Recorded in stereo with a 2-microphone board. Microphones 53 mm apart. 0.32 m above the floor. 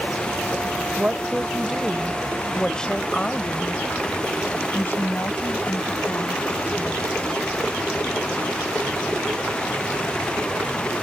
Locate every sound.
1.0 s a woman speaking: 25° right (ahead or behind); by 7.1 s 55° left (ahead or behind)